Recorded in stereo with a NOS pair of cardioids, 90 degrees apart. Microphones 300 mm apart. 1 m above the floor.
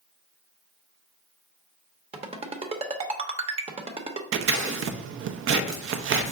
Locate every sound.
2.1 s a ringtone: 20° right, 0.8 m
4.3 s scissors: 45° right, 0.5 m